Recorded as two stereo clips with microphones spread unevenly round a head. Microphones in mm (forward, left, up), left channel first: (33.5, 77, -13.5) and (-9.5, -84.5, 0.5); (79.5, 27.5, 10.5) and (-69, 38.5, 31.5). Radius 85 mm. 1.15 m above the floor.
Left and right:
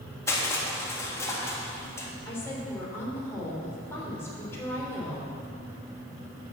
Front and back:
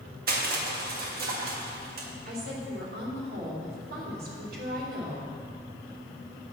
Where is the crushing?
150° left, 1.7 m.